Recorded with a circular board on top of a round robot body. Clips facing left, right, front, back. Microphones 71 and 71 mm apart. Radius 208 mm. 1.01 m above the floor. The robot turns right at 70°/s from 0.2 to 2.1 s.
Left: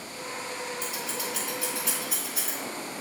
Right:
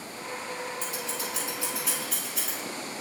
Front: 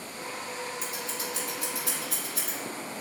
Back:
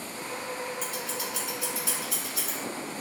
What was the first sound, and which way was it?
Scissors, 80° right.